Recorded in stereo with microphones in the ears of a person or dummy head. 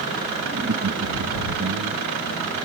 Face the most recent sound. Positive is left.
turn(degrees=-80)